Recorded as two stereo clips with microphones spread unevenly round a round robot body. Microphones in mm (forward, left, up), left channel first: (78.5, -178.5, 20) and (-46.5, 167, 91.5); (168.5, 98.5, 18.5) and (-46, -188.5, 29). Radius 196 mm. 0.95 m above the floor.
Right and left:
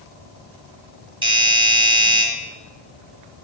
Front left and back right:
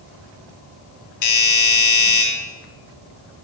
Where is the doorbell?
30° left, 1.5 m.